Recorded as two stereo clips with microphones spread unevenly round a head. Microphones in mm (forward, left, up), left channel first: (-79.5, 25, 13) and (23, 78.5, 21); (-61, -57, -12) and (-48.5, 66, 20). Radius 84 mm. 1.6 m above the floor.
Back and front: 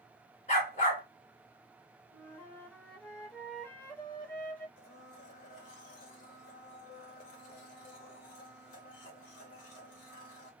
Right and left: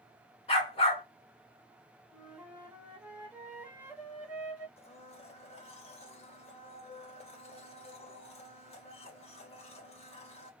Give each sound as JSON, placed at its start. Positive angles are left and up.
{"t": 0.5, "sound": "a dog barking", "azimuth_deg": -140, "distance_m": 1.6}
{"t": 2.1, "sound": "a flute", "azimuth_deg": 135, "distance_m": 1.2}
{"t": 4.8, "sound": "a blender", "azimuth_deg": -140, "distance_m": 0.9}